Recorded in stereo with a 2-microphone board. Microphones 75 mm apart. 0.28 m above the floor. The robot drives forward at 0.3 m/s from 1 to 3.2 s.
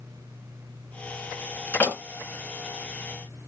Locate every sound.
1.7 s a door slam: 30° left (ahead or behind), 2 m